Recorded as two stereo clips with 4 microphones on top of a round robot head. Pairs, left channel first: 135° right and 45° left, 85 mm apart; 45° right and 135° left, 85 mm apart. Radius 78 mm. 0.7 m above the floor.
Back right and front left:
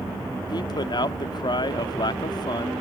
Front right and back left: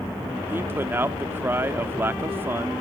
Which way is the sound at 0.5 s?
160° right.